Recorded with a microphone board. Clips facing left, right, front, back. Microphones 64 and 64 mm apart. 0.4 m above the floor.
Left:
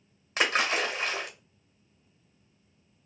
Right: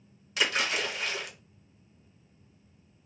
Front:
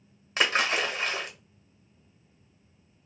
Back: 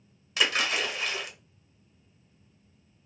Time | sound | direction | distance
0.4 | a splash | 45° left | 0.7 m